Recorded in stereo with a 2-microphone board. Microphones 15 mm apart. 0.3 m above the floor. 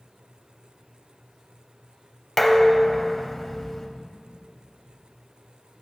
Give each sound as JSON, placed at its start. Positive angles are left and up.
{"t": 2.4, "sound": "dishes clattering", "side_deg": 15, "distance_m": 0.8}